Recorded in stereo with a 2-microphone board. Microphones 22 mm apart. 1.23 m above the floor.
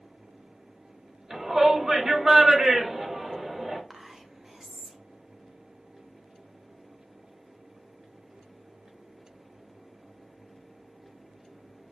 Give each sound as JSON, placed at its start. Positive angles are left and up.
{"t": 1.3, "sound": "a shout", "side_deg": -20, "distance_m": 2.5}
{"t": 3.9, "sound": "whispering", "side_deg": -15, "distance_m": 0.5}